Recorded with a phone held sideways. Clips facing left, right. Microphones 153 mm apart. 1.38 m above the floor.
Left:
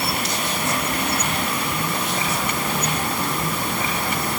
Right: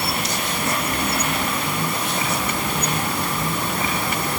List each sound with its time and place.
Only background noise.